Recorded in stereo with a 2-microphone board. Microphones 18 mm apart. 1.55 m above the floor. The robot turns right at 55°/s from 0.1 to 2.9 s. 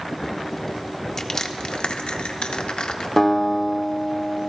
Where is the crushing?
25° left (ahead or behind), 0.8 m; by 3.1 s 60° left (ahead or behind), 0.8 m.